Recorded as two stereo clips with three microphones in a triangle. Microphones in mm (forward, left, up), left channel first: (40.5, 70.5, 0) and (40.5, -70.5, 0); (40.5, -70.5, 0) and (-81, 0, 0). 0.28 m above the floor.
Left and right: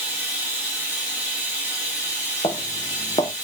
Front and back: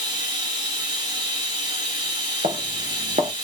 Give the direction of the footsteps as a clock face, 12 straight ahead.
7 o'clock.